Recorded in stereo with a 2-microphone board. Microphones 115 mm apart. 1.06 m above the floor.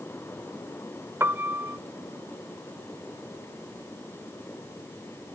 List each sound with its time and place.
1.2 s a piano: 20° right (ahead or behind)